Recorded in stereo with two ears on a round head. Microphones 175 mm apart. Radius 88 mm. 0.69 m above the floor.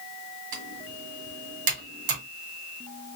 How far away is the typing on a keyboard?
About 1.9 m.